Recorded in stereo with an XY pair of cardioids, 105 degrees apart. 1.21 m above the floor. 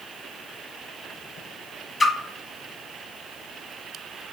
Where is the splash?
30° left, 0.9 m.